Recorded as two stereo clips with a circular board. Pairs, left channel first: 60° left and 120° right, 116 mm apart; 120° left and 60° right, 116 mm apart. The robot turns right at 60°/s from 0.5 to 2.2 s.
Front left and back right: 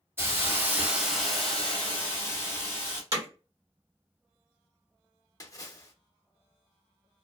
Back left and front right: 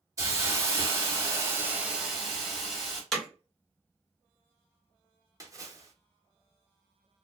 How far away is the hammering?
About 1.0 m.